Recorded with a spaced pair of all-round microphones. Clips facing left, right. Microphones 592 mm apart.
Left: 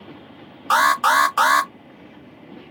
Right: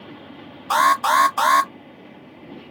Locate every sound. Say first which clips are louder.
0.7 s an alarm: even; 40° left (ahead or behind), 0.5 m